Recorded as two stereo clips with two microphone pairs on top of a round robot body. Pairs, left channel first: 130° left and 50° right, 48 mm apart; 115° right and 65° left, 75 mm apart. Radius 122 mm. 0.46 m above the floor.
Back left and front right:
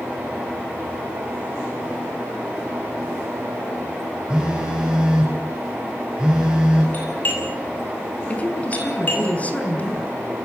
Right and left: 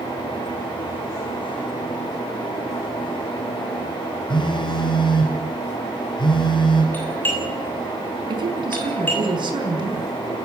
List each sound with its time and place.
4.3 s a phone buzzing: 125° right, 3.5 m
6.9 s a doorbell: straight behind, 7 m
8.3 s a woman speaking: 70° left, 5 m